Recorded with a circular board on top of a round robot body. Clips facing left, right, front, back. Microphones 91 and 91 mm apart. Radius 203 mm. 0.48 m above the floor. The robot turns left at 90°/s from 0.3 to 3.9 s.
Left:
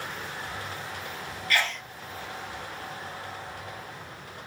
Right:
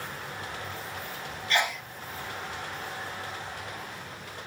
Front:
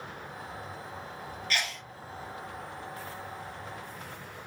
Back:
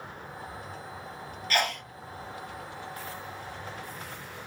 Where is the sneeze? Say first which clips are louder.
Right 1 dB, back 7 dB; 150° right, 0.9 m; by 1.8 s straight behind, 0.9 m.